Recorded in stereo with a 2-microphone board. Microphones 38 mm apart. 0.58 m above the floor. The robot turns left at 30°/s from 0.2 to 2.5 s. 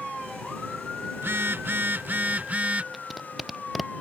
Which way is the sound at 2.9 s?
Centre (ahead or behind).